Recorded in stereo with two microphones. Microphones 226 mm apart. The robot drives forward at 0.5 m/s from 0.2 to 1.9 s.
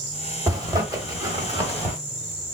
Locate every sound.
0.5 s a zipper: 15° right (ahead or behind), 1.2 m